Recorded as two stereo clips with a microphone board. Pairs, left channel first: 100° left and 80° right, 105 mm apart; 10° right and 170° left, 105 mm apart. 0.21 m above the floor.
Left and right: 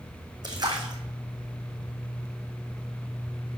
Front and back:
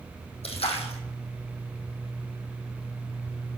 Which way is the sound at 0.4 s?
30° right.